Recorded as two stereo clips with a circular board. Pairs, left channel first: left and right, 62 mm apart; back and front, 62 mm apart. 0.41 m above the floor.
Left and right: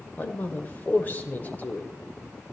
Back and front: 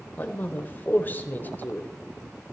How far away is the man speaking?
About 1.1 m.